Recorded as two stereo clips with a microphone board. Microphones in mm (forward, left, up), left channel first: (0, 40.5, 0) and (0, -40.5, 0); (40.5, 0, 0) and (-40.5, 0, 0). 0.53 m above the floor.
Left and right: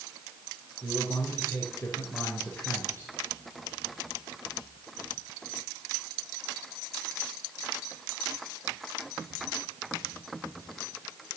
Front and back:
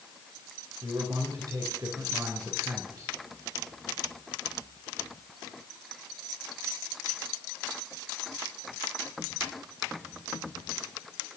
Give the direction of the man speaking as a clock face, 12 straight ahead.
7 o'clock.